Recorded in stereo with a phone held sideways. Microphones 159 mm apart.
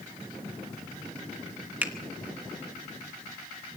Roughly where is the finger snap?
Centre.